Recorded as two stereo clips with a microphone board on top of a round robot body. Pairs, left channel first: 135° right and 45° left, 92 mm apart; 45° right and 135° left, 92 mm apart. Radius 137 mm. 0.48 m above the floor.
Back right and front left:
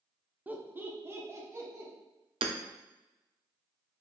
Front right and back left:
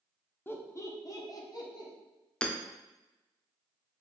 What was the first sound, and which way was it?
Laughter, 10° right.